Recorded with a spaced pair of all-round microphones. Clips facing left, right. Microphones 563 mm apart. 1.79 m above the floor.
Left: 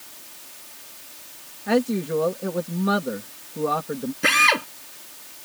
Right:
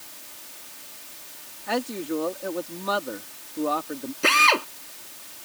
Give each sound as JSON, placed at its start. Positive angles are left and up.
{"t": 1.7, "sound": "a man speaking", "side_deg": 70}
{"t": 4.2, "sound": "a drill", "side_deg": 40}